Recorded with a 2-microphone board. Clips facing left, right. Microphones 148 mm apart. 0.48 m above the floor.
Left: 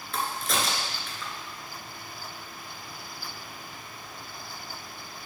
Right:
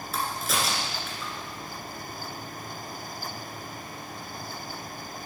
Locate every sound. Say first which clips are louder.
0.1 s a crack: even; 5° right (ahead or behind), 1.6 m